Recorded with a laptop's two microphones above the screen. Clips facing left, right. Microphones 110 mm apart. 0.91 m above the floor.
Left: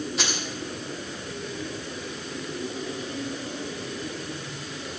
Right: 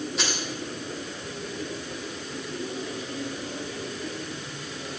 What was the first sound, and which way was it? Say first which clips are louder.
Keys jangling: even; centre (ahead or behind).